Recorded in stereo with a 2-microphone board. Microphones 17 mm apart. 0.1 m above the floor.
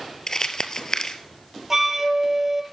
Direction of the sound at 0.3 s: 40° left (ahead or behind).